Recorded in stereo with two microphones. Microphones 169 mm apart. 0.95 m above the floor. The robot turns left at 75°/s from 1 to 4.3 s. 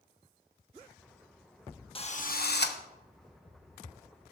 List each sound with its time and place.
1.9 s a drill: 145° left, 1.0 m; by 2.8 s 85° left, 1.0 m